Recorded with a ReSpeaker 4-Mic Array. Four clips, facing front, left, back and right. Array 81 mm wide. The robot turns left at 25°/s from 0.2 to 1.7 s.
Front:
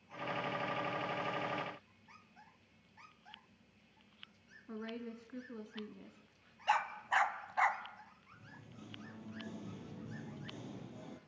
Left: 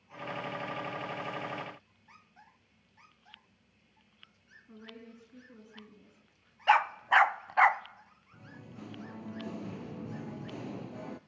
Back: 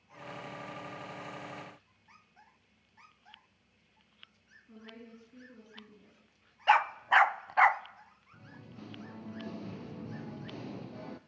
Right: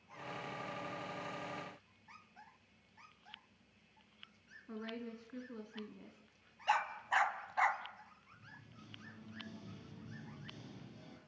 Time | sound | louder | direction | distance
4.7 | a woman speaking | right 5 dB, front 6 dB | 35° right | 2.5 m
6.7 | a dog barking | left 10 dB, back 9 dB | 130° left | 0.7 m
8.3 | singing | left 11 dB, back 6 dB | 115° left | 1.1 m